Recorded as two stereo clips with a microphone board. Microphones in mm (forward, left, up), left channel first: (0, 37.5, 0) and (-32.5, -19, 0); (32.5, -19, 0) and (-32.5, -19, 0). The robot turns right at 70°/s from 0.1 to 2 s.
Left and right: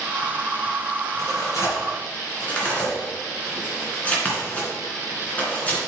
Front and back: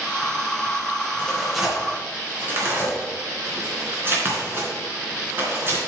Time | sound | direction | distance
1.2 | tearing paper | 70° left | 3.5 m